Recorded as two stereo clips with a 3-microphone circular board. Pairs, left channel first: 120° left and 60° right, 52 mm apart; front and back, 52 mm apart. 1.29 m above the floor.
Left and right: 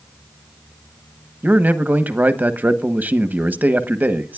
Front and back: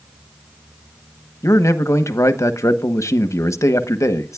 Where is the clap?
I don't hear a clap.